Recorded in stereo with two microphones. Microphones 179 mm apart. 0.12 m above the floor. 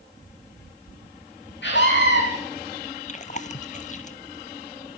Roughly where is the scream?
Left.